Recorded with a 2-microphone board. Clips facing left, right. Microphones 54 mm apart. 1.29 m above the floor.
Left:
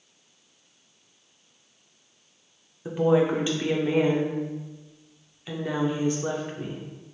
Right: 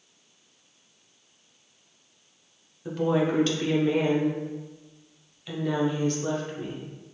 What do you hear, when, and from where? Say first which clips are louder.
2.9 s a woman speaking: left 3 dB; 15° left (ahead or behind), 0.5 m